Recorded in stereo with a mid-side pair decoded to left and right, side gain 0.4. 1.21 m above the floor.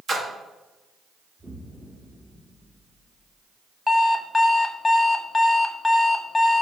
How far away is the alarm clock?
About 0.9 m.